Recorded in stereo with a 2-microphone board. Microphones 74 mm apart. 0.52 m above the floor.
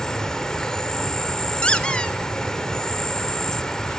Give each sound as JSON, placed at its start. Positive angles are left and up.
{"t": 0.0, "sound": "an insect", "side_deg": 10, "distance_m": 1.1}
{"t": 1.6, "sound": "a squeak", "side_deg": 15, "distance_m": 0.8}